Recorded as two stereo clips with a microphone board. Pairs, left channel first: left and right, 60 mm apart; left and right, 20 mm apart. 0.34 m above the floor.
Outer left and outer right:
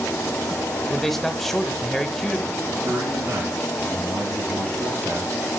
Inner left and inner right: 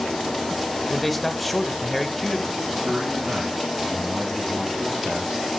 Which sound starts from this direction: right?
A man speaking, at 2.8 s.